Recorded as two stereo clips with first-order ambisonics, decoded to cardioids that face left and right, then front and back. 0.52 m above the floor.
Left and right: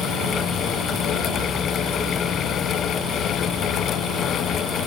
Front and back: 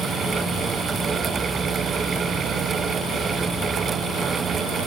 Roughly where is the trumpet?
No trumpet in this recording.